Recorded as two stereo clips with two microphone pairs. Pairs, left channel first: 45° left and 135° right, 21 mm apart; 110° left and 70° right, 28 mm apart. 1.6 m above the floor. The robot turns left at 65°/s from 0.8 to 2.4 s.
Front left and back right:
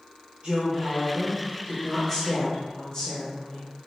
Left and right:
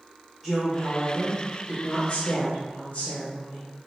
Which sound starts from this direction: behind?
A woman speaking, at 0.4 s.